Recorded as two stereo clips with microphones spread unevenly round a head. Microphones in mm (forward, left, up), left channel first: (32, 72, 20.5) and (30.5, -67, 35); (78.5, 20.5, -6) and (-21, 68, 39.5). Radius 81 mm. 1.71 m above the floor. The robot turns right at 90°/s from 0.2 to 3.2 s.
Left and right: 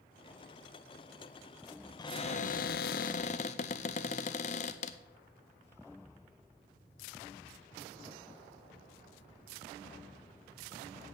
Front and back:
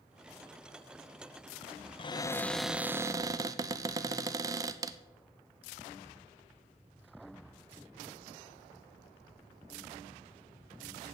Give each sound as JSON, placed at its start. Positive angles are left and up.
{"t": 2.0, "sound": "a cupboard door", "azimuth_deg": 25, "distance_m": 0.5}